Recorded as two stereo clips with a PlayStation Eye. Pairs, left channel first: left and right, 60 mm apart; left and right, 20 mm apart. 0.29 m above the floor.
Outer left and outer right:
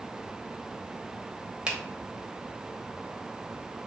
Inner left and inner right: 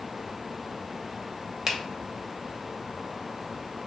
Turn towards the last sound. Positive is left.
turn(degrees=-20)  # may be behind; listen again after turning